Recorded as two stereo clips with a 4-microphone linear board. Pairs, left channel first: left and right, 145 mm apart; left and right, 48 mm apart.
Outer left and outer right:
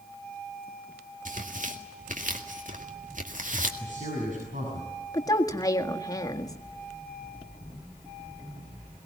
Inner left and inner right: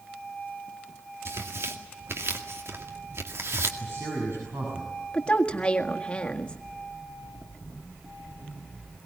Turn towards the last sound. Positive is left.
turn(degrees=25)  # may be behind; listen again after turning